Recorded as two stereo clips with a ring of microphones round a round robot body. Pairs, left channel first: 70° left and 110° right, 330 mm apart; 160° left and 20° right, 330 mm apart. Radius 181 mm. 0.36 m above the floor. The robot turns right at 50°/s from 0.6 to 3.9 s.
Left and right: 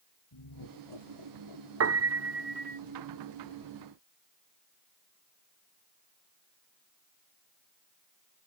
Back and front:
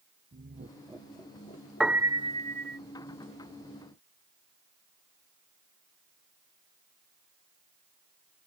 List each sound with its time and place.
0.3 s laughter: 45° left; by 2.8 s 155° left
1.8 s a piano: 110° right; by 2.8 s 60° right